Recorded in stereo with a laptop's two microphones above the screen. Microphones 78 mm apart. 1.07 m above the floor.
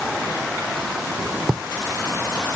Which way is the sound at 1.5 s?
10° right (ahead or behind).